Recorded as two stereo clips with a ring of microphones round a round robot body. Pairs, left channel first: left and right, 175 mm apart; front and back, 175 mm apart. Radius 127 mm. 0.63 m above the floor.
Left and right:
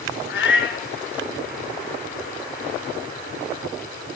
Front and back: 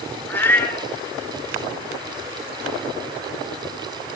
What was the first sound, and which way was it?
A cat meowing, 80° left.